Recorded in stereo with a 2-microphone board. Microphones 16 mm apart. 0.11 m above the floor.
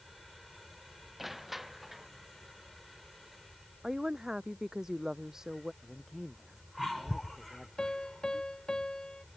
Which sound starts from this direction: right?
A woman speaking, at 3.8 s.